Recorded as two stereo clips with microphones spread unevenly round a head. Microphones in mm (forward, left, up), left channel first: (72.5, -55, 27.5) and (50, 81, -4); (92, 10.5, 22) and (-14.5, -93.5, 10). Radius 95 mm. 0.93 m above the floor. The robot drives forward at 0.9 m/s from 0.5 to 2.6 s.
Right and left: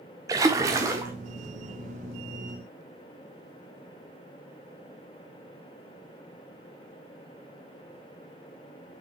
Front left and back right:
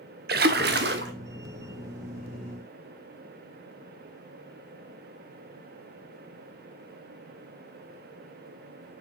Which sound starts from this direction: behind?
A splash, at 0.3 s.